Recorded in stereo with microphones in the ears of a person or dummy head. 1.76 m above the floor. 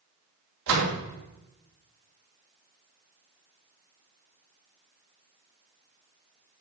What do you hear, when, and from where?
0.7 s a door slam: 65° right (ahead or behind), 3 m